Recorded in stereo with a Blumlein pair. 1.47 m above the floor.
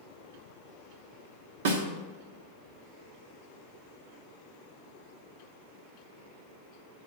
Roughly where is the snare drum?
Ahead right.